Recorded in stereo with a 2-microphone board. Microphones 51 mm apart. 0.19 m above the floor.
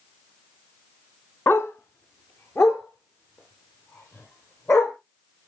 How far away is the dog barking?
About 0.9 m.